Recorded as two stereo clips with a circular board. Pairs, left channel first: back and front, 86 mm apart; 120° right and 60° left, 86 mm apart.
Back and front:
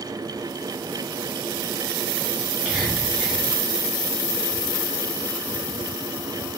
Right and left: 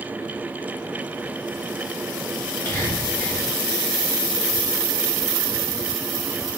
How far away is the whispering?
About 1.5 m.